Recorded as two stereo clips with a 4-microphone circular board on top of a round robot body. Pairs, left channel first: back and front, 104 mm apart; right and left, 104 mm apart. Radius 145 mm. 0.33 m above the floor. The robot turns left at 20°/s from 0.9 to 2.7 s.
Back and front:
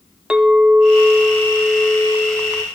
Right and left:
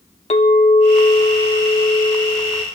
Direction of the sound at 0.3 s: 80° right.